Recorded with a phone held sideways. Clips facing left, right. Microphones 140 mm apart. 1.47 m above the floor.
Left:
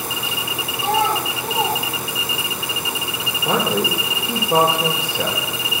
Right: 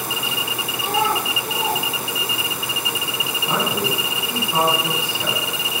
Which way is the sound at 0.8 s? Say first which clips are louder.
Left 2 dB; 80° left.